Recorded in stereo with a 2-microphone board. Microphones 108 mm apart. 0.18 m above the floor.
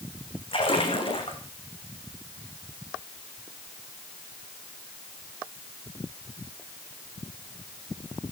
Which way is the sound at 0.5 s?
55° left (ahead or behind).